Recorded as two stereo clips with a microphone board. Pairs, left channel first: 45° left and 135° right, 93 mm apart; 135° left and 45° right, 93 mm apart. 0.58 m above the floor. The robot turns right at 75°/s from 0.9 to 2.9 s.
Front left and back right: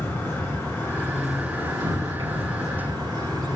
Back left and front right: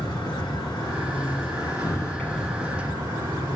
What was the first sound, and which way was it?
An insect, 105° left.